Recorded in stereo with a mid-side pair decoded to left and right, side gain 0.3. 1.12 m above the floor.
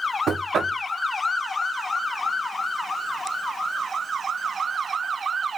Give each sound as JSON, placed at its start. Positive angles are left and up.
{"t": 0.3, "sound": "knocking", "azimuth_deg": -70, "distance_m": 0.6}